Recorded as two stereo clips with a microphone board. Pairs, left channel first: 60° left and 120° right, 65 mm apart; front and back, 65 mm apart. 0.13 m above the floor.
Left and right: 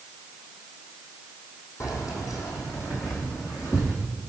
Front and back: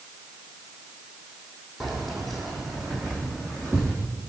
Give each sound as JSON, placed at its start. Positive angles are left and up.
{"t": 1.8, "sound": "keys jangling", "azimuth_deg": 95, "distance_m": 3.5}